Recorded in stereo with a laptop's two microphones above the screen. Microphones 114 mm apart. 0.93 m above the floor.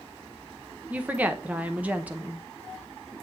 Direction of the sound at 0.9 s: 15° right (ahead or behind).